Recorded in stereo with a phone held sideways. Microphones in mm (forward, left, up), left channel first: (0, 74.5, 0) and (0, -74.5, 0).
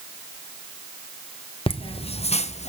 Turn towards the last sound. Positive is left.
turn(degrees=45)  # may be behind; listen again after turning